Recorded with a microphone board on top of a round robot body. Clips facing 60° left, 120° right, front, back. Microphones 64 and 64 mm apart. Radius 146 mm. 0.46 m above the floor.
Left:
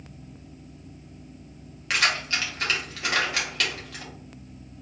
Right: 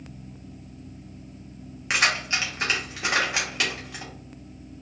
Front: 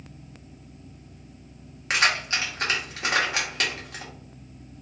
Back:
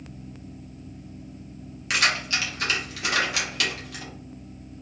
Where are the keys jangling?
50° right, 1.7 m.